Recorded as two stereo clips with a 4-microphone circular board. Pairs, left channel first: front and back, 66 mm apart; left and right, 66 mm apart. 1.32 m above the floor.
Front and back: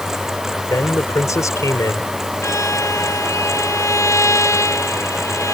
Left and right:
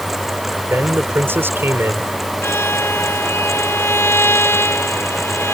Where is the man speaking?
35° right.